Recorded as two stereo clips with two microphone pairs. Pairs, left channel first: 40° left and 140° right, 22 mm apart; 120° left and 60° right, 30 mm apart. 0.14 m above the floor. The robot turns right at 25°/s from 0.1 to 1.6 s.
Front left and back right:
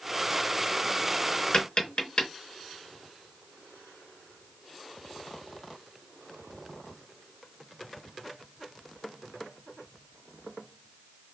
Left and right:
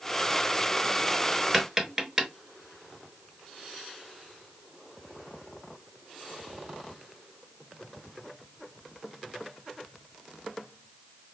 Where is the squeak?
I don't hear a squeak.